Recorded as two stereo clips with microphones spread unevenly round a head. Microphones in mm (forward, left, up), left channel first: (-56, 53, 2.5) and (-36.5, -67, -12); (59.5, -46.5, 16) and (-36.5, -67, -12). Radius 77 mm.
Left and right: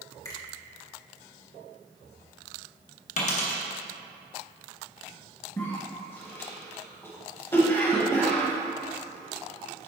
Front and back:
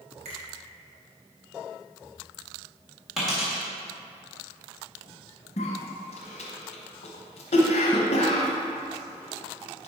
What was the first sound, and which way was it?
A finger snap, 160° left.